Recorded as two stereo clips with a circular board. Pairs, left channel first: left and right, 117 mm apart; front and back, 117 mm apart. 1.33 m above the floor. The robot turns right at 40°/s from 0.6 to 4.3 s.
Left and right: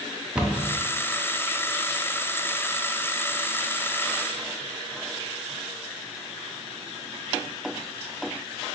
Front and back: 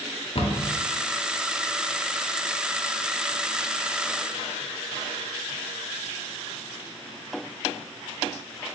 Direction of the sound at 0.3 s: 10° right.